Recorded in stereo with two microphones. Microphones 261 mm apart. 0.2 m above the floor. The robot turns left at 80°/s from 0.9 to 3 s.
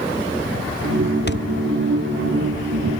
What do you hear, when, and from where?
1.3 s a thud: 40° left (ahead or behind); by 1.4 s 50° left (ahead or behind)